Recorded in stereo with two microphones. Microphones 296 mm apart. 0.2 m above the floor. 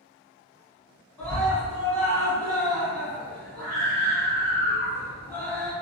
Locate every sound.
1.2 s a scream: 5° left (ahead or behind), 1.7 m